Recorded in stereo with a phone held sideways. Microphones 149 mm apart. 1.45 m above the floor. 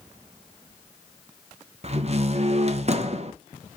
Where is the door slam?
45° right (ahead or behind), 0.7 m.